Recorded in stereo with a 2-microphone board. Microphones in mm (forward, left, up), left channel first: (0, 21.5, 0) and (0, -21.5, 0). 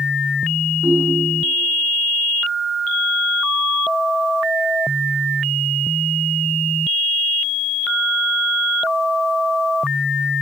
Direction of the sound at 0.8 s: 60° right (ahead or behind).